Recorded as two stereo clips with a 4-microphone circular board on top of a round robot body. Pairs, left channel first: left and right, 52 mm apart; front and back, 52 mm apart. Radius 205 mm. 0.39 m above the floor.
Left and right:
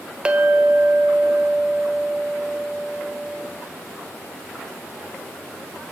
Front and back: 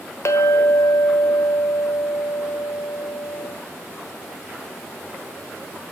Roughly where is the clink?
Ahead.